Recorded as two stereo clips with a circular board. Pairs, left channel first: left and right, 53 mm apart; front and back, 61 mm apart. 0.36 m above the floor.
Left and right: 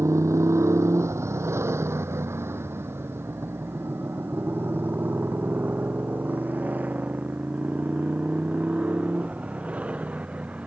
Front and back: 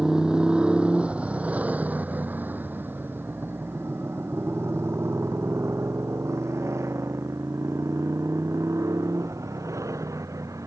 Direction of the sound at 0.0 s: 100° right.